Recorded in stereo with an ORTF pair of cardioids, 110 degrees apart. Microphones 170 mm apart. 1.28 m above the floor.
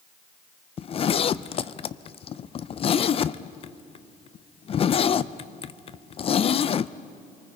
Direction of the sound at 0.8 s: 35° left.